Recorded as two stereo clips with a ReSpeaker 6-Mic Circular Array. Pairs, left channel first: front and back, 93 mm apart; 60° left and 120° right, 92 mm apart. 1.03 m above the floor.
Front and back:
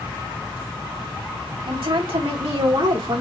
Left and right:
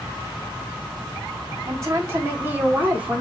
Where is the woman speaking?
175° right, 1.9 m; by 3.2 s 165° left, 2 m.